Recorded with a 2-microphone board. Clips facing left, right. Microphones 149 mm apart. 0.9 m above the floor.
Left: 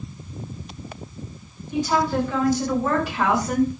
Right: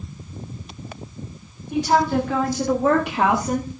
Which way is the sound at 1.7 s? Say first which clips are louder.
Right 3 dB; 65° right (ahead or behind).